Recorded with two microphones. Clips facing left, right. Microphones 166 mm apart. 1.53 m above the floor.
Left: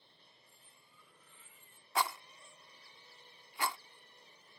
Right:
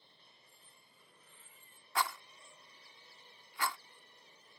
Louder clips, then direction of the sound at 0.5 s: Even; 45° right (ahead or behind).